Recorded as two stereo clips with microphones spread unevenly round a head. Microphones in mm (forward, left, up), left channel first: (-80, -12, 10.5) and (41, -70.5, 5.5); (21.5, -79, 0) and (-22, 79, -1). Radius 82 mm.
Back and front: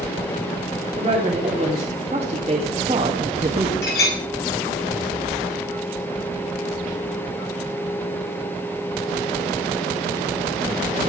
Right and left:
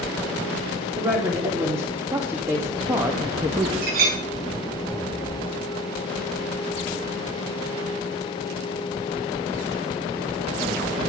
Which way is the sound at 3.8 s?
140° left.